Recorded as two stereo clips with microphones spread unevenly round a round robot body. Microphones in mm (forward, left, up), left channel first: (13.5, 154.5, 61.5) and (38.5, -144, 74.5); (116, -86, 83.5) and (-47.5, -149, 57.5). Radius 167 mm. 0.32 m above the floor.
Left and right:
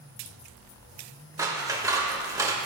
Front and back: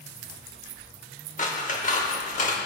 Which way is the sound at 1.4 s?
10° right.